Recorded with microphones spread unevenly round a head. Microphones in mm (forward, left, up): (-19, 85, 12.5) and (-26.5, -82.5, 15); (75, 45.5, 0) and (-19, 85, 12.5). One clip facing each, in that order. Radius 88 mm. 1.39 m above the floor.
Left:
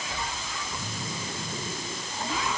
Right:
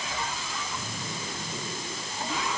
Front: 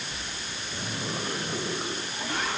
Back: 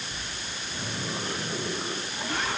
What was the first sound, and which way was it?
Only background noise.